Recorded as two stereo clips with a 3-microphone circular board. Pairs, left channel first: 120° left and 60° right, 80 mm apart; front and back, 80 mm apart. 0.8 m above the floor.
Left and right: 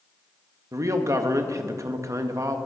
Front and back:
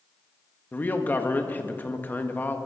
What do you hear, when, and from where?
0.7 s a man speaking: 55° right, 1.2 m